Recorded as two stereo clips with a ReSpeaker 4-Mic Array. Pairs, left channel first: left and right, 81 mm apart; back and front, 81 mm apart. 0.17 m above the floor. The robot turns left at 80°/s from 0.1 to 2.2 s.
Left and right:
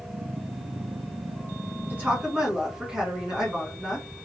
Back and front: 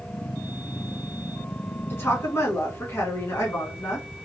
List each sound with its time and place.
1.9 s a woman speaking: 135° right, 1.5 m; by 4.1 s 160° right, 1.5 m